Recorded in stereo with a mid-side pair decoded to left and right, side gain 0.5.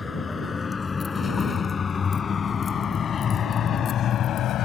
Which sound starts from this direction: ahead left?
A vehicle, at 0.0 s.